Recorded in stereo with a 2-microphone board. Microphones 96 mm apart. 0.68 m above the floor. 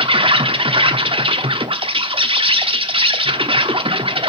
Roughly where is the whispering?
No whispering in this recording.